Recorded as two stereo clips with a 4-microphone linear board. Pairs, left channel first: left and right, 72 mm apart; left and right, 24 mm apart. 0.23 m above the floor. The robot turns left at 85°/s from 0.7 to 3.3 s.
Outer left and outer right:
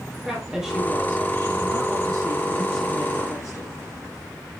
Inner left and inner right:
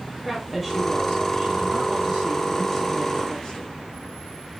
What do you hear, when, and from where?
0.2 s a woman speaking: 10° right, 3 m; by 3.7 s 130° left, 3 m